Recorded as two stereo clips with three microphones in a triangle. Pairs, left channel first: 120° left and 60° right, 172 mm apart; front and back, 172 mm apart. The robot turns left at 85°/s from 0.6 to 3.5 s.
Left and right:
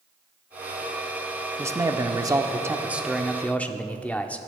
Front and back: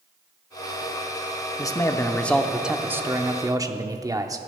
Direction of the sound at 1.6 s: 10° right.